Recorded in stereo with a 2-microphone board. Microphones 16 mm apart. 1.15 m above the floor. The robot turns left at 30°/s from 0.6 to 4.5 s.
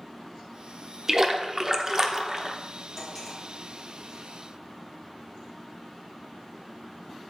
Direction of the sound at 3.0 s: 5° right (ahead or behind).